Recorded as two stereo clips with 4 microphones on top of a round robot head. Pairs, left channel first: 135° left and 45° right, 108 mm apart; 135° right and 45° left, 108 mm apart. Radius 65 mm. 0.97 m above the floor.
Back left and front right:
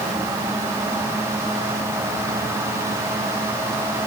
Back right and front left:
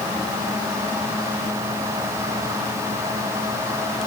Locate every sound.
Only background noise.